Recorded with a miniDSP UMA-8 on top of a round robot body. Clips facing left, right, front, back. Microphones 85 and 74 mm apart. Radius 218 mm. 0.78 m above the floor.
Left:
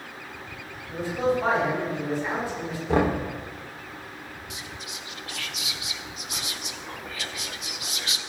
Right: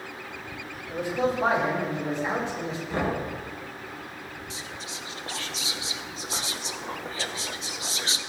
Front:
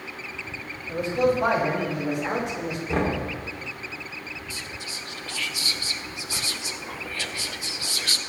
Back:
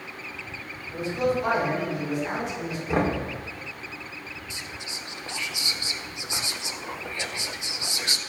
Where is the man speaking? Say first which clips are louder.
Left 1 dB, front 3 dB; 20° right, 5.5 m; by 2.8 s 25° right, 5 m.